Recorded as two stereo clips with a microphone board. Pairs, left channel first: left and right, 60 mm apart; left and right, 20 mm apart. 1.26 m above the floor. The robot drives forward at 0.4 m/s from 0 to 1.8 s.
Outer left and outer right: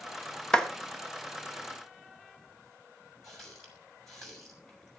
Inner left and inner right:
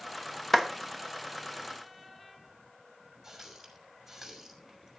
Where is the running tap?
Centre (ahead or behind), 6 m.